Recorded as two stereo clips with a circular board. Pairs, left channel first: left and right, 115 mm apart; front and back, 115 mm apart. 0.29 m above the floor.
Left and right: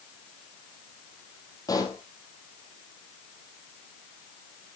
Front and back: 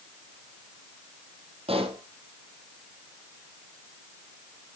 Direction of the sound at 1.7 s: 145° left.